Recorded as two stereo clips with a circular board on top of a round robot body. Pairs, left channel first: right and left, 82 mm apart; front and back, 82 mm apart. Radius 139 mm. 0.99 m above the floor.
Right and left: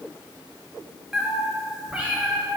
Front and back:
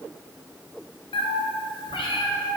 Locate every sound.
1.1 s a cat meowing: 5° left, 0.6 m; by 2.6 s 10° left, 1.8 m